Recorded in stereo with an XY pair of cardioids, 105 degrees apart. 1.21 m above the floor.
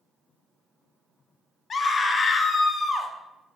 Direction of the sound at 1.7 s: 40° left.